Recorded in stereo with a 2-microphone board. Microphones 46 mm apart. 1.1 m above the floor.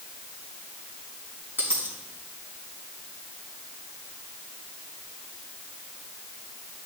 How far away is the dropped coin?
About 4.5 m.